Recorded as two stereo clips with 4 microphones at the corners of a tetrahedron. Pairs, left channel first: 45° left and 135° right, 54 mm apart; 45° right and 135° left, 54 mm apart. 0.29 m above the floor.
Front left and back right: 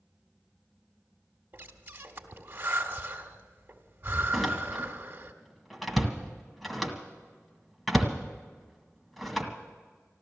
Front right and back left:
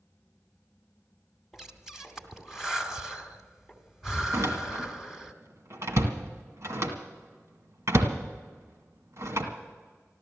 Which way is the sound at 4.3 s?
135° left.